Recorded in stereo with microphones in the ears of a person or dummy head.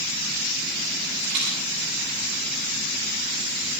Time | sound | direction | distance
1.2 | a rattle | 65° right (ahead or behind) | 8.5 m